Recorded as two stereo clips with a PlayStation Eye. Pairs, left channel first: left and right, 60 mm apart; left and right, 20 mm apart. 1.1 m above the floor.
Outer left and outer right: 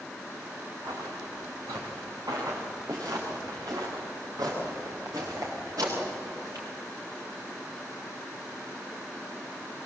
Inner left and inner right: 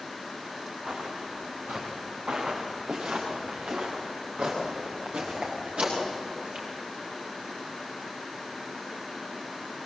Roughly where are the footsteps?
Right.